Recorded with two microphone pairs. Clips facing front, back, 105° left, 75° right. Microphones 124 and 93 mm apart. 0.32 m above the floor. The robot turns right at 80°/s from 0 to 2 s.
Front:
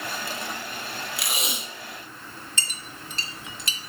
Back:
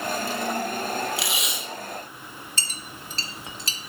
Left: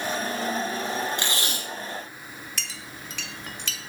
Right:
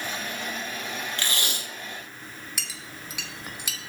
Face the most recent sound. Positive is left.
turn(degrees=-150)